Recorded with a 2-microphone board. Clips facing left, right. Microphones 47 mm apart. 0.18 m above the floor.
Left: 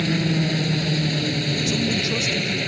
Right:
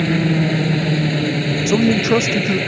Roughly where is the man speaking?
Right.